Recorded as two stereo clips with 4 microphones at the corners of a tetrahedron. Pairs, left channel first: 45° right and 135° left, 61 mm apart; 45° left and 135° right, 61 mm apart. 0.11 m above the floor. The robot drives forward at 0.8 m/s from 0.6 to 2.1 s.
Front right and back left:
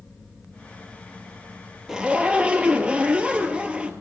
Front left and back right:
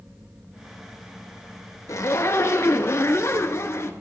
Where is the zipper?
55° left, 0.8 m; by 3.9 s 70° left, 0.7 m.